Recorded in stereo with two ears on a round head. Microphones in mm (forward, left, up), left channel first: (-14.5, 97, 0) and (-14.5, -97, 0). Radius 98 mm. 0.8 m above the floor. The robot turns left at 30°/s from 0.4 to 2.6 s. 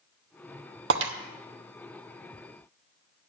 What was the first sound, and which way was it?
Breaking glass, 60° right (ahead or behind).